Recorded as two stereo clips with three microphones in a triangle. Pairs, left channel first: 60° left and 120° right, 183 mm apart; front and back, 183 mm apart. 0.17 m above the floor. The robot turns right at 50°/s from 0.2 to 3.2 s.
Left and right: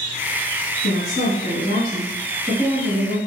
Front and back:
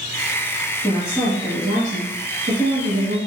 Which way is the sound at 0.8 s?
60° left.